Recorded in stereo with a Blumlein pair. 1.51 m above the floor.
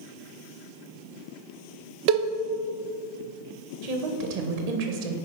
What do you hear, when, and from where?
2.1 s a cowbell: 45° right, 0.7 m
3.8 s a woman speaking: 50° right, 1.5 m